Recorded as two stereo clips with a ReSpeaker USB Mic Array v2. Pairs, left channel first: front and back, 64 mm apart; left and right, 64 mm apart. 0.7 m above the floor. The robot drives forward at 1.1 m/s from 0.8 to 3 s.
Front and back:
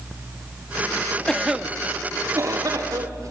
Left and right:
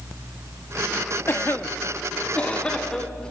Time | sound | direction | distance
1.3 | a cough | 70° left | 0.8 m